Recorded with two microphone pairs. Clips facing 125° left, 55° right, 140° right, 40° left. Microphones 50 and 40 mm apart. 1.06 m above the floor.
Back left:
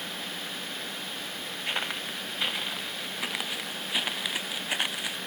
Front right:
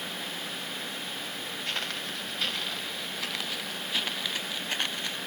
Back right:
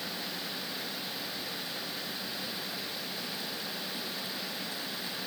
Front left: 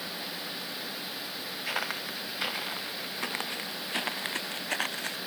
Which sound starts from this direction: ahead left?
Footsteps, at 1.6 s.